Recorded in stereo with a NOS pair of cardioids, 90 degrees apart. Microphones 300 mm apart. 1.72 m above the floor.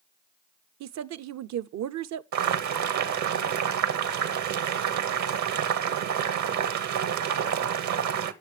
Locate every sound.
0.8 s a woman speaking: 65° right, 0.8 m
2.3 s boiling: 65° right, 1.4 m